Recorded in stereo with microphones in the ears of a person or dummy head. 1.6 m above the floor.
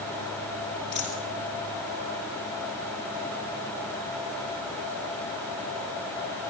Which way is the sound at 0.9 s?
20° right (ahead or behind).